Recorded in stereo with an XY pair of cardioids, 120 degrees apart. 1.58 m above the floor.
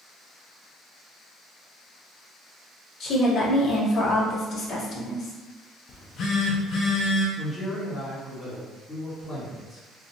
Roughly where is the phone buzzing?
Ahead left.